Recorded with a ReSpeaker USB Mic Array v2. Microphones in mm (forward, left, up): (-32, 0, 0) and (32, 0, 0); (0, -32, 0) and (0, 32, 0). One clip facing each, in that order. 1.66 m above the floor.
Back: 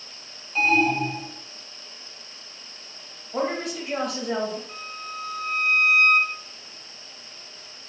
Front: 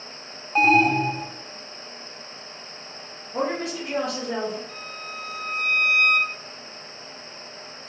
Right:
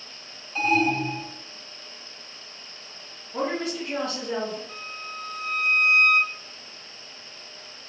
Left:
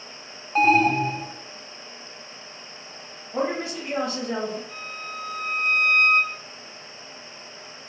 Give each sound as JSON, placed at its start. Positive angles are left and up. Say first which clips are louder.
{"t": 0.6, "sound": "an alarm", "louder": "front 3 dB, left 4 dB", "azimuth_deg": 45, "distance_m": 0.7}
{"t": 3.3, "sound": "a woman speaking", "louder": "even, left 1 dB", "azimuth_deg": 145, "distance_m": 2.0}
{"t": 4.7, "sound": "a violin", "louder": "back 1 dB, left 2 dB", "azimuth_deg": -130, "distance_m": 1.7}